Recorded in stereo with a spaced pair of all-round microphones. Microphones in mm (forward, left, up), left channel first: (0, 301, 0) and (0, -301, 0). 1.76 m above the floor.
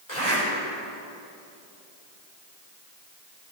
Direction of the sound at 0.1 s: 75° left (ahead or behind).